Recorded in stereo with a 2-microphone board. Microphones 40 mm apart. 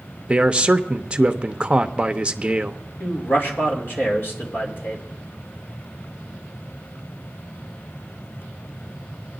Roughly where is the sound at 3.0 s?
Left.